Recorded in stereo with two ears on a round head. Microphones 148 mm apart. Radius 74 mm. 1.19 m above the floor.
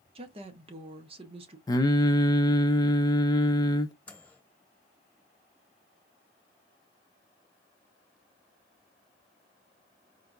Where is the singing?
25° left (ahead or behind), 0.6 m.